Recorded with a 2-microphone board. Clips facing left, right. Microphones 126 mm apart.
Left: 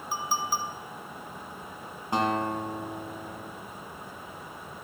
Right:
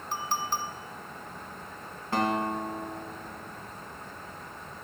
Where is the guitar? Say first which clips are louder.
Left 1 dB; 20° left (ahead or behind), 1.7 m.